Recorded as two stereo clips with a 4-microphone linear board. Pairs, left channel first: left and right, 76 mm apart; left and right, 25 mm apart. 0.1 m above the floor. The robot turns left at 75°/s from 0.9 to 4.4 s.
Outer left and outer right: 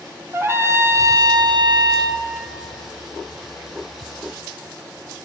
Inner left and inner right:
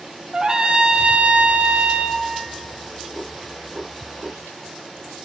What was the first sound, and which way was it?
A trumpet, 35° right.